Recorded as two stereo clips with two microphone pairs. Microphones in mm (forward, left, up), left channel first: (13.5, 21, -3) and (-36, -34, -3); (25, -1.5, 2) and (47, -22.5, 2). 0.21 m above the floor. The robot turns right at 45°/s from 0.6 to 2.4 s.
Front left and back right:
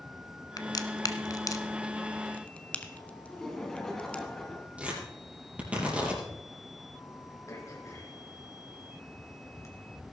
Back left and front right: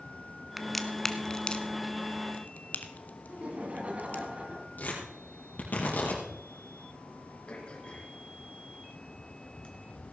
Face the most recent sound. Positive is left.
turn(degrees=90)